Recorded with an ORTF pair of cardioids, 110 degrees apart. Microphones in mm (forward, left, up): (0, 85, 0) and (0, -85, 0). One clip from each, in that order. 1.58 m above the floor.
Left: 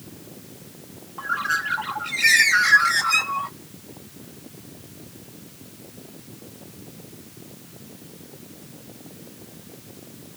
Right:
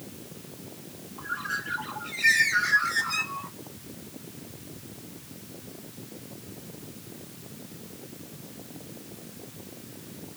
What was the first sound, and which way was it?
A bird, 45° left.